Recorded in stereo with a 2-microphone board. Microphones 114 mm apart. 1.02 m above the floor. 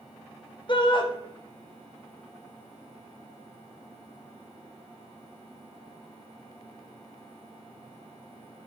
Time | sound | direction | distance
0.7 | a shout | 45° left (ahead or behind) | 1.5 m